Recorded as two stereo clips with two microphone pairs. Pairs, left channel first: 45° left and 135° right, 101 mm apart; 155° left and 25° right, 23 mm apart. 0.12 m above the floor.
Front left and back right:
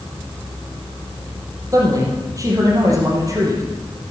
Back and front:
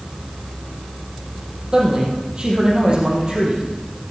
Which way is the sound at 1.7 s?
80° right.